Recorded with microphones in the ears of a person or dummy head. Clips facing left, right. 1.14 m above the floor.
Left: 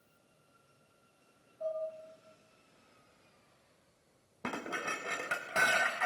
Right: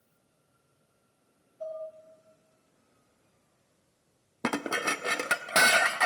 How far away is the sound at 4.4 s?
About 0.8 m.